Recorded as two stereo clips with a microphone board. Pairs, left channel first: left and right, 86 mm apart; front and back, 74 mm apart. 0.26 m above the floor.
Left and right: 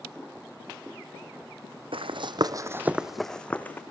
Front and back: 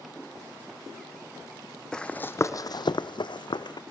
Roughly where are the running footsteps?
Right.